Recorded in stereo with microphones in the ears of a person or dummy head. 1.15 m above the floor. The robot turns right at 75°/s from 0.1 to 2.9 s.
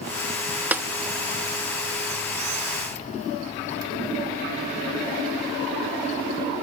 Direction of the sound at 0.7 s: 10° right (ahead or behind).